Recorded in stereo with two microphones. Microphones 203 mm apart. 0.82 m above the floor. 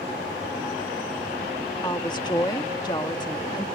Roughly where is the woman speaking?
Left.